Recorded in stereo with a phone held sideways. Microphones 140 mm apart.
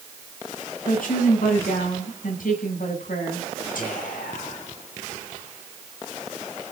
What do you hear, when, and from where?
0.9 s a woman speaking: 80° left, 7.5 m
3.8 s whispering: 75° left (ahead or behind), 7 m